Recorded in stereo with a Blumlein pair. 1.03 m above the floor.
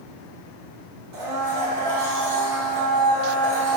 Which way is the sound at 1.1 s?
45° right.